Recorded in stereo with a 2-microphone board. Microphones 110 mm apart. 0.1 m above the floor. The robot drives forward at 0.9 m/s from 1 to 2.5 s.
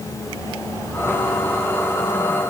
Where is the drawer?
No drawer in this recording.